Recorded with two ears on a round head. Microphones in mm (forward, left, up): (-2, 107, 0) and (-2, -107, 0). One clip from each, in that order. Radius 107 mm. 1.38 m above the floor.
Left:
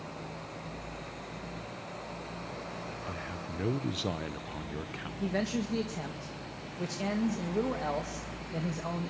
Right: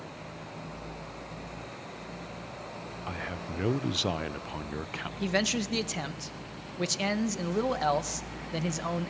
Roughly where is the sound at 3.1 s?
Right.